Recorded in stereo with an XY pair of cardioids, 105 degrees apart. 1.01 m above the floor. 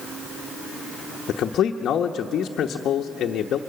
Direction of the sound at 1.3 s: 65° left.